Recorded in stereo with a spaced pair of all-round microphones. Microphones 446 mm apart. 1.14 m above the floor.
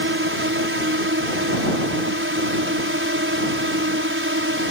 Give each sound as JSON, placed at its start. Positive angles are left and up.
{"t": 0.0, "sound": "a drone", "side_deg": -25}